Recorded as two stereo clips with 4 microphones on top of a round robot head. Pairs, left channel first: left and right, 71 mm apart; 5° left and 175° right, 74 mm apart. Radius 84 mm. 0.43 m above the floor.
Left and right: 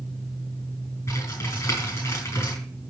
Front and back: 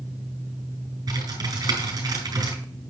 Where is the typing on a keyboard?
145° left, 6.5 m.